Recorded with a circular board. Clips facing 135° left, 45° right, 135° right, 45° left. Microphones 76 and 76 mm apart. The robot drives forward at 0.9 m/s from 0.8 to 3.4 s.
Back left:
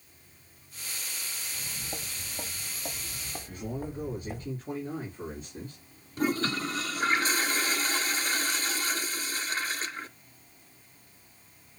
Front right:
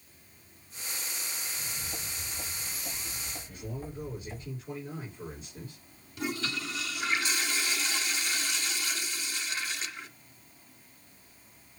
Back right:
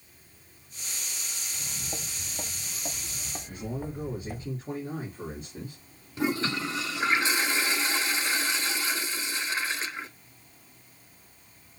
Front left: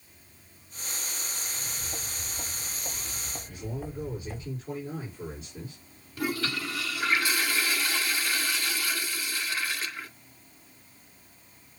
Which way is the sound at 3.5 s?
Straight behind.